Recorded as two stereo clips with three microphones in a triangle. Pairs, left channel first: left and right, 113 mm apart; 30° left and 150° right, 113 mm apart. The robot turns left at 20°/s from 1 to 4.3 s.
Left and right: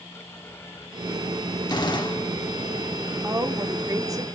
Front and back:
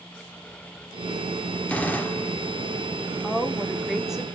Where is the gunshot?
100° left, 1.1 m; by 2.3 s 90° left, 1.1 m.